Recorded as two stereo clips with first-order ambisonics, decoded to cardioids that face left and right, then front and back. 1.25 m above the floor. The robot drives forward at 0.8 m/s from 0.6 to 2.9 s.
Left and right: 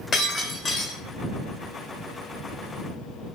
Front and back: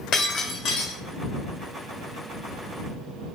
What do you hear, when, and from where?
0.1 s breaking glass: 25° left, 1.3 m; by 1.0 s 35° left, 1.1 m